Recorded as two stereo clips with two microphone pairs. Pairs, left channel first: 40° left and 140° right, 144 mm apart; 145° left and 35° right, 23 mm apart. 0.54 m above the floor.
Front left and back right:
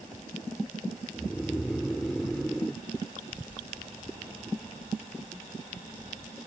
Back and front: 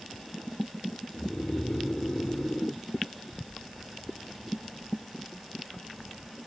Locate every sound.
1.1 s snoring: 125° left